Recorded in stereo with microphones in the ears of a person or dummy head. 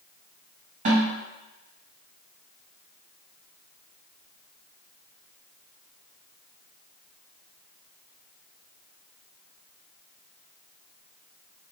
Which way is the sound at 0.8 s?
35° right (ahead or behind).